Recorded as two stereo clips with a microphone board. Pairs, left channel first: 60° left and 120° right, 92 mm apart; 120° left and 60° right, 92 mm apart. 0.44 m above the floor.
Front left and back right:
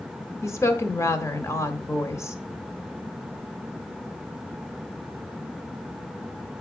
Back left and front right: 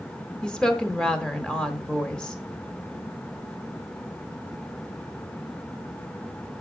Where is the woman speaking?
45° left, 0.9 m.